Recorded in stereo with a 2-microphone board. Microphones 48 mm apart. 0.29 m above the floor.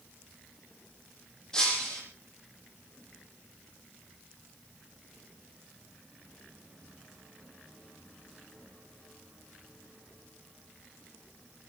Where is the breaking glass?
15° left (ahead or behind), 7 m.